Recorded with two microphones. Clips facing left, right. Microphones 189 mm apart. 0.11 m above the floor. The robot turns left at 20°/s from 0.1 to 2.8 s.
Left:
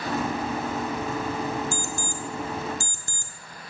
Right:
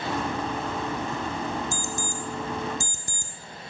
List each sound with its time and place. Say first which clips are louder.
1.7 s an alarm clock: even; 20° right (ahead or behind), 0.6 m